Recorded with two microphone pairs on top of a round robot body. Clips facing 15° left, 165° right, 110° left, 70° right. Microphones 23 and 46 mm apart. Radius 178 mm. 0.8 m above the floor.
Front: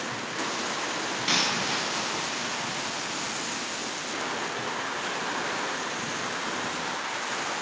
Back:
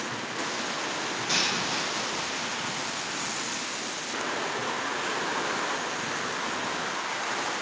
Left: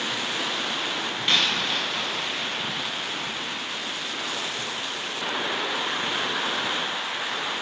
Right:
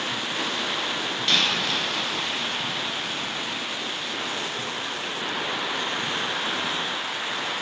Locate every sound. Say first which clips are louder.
1.3 s a dropped coin: front 2 dB, even; 35° left, 1.3 m